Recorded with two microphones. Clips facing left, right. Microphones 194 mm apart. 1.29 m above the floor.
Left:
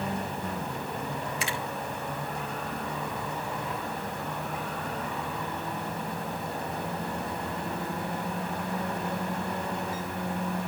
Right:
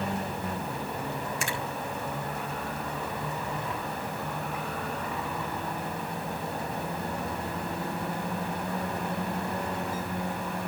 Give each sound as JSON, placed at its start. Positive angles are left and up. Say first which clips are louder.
{"t": 1.4, "sound": "a finger snap", "louder": "even", "side_deg": -50, "distance_m": 3.5}